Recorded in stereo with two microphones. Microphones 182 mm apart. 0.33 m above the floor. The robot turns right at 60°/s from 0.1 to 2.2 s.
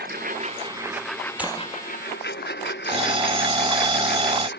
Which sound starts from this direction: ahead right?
A lawn mower, at 0.0 s.